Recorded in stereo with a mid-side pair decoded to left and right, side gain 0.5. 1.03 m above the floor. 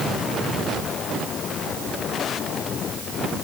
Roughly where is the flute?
No flute in this recording.